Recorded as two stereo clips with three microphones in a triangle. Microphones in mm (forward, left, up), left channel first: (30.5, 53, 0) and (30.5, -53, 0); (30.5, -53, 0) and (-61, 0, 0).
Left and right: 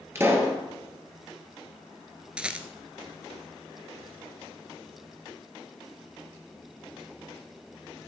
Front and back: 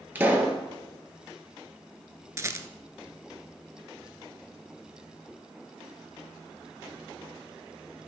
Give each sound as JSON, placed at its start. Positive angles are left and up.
{"t": 0.1, "sound": "a pop", "azimuth_deg": -145, "distance_m": 1.7}
{"t": 2.4, "sound": "a rattle", "azimuth_deg": -165, "distance_m": 0.6}